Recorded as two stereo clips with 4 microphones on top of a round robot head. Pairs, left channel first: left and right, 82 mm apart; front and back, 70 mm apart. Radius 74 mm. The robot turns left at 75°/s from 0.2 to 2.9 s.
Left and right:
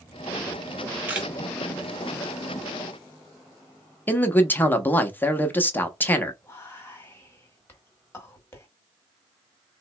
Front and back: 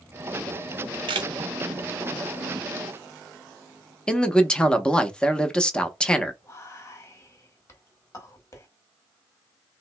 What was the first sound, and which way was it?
A camera shutter, 165° right.